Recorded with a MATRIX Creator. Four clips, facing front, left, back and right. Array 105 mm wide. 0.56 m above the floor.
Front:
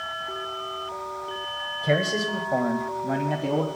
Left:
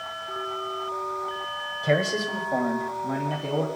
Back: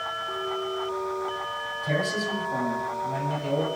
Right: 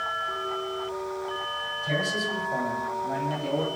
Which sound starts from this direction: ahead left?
A man speaking, at 1.8 s.